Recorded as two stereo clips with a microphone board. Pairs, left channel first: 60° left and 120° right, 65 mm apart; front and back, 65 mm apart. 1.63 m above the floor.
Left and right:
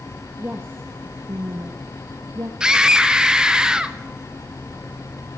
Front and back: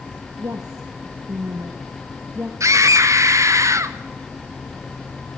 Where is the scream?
165° left, 0.8 m.